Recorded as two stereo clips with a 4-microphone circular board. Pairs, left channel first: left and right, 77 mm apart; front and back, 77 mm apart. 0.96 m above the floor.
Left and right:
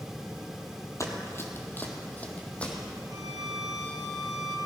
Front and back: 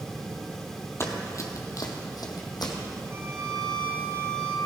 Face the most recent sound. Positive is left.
turn(degrees=-125)